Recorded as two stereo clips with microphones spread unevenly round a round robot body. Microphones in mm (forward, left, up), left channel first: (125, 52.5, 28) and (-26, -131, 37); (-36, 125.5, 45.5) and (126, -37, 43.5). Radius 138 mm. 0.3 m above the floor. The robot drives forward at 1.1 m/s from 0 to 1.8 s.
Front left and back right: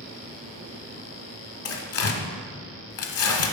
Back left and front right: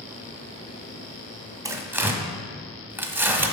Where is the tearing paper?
30° left, 1.0 m; by 3.5 s 35° left, 0.9 m.